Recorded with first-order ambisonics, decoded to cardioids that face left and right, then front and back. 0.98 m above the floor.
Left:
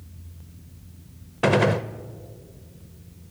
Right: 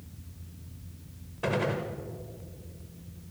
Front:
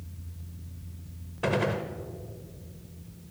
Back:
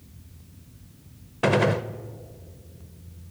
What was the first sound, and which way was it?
A gunshot, 125° left.